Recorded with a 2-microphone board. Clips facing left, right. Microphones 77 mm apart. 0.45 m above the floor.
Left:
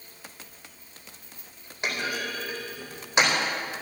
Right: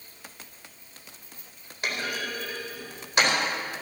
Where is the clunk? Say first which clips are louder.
Left 1 dB; 20° left (ahead or behind), 4 m.